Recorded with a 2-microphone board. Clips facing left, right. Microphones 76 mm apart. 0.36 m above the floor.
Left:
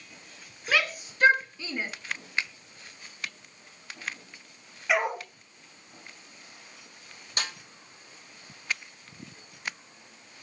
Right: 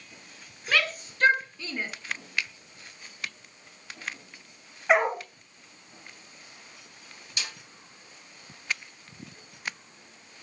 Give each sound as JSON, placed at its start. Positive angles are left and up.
{"t": 0.7, "sound": "a shout", "side_deg": 5, "distance_m": 3.5}
{"t": 2.4, "sound": "a finger snap", "side_deg": 30, "distance_m": 1.1}
{"t": 4.9, "sound": "a dog barking", "side_deg": -40, "distance_m": 3.5}
{"t": 7.4, "sound": "a snare drum", "side_deg": 50, "distance_m": 2.5}